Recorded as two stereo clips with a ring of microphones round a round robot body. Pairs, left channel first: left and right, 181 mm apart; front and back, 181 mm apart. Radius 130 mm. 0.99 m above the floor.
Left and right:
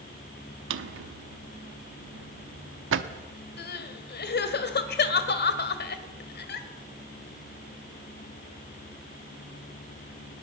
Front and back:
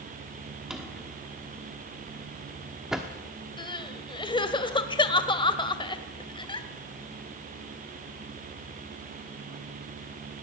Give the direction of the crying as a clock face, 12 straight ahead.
10 o'clock.